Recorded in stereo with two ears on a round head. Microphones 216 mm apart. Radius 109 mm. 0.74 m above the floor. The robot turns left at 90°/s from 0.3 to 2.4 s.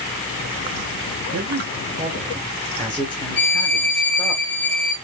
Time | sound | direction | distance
1.3 | a man speaking | 100° right | 2.5 m
3.4 | a violin | 45° left (ahead or behind) | 1.4 m